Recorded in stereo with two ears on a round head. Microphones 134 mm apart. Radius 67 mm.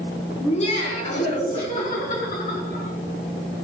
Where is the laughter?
45° left (ahead or behind), 4 m; by 2.9 s 55° left (ahead or behind), 5.5 m.